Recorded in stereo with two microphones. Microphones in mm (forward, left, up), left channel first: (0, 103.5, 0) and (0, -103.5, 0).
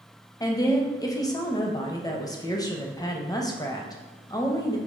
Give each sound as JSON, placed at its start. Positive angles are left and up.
{"t": 0.4, "sound": "a woman speaking", "side_deg": 15, "distance_m": 0.5}